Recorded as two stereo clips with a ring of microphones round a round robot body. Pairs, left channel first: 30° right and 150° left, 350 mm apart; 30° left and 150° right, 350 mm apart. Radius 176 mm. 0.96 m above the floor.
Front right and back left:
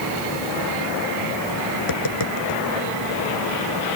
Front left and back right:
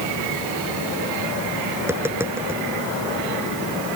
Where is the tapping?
65° right.